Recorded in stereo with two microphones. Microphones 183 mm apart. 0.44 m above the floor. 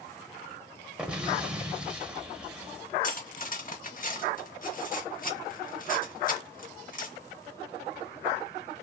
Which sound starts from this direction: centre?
An explosion, at 1.0 s.